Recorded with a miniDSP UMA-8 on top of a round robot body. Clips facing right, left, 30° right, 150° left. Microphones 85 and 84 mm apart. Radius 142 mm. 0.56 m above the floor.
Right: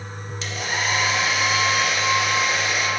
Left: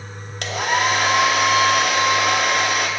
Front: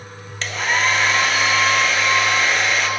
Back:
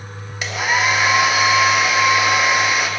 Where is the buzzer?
No buzzer in this recording.